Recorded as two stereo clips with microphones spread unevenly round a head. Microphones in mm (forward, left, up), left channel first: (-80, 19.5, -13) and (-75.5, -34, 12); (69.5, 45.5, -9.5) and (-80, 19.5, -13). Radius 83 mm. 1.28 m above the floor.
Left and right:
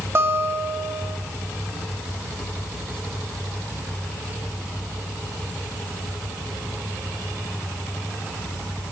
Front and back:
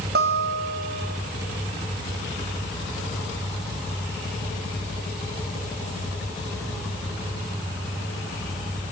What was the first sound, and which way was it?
A guitar, 135° right.